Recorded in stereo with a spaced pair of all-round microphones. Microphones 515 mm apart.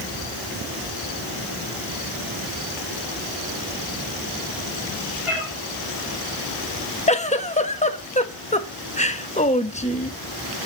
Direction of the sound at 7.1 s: 15° left (ahead or behind).